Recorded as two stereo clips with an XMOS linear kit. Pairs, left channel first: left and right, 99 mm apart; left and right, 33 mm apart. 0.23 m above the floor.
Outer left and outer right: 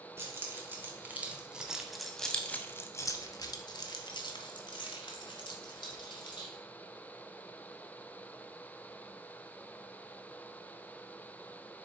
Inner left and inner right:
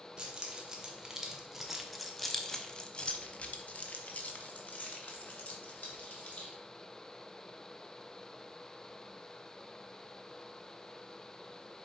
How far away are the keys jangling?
About 1.5 m.